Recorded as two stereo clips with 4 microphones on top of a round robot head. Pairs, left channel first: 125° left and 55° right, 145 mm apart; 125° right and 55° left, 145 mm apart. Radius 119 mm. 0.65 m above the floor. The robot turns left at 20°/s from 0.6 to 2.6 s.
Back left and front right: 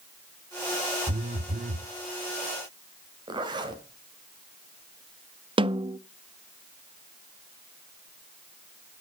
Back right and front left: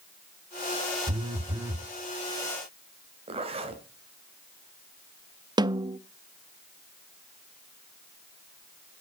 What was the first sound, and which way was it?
A phone buzzing, 5° right.